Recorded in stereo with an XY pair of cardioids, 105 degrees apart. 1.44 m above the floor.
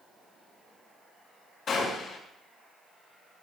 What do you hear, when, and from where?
1.7 s a gunshot: 60° left, 7 m